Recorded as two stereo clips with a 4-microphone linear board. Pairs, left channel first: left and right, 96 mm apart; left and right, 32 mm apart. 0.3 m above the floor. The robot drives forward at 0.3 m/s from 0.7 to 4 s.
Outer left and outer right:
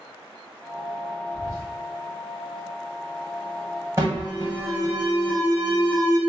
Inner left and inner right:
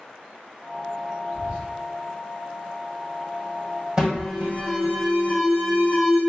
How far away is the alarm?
About 1.6 m.